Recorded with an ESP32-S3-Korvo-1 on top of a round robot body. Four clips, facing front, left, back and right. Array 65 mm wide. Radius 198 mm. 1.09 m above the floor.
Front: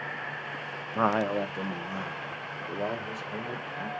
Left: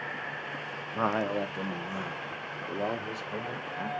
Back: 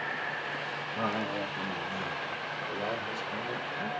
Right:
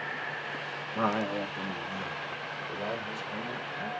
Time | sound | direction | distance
0.9 | a man speaking | 5° left | 1.1 m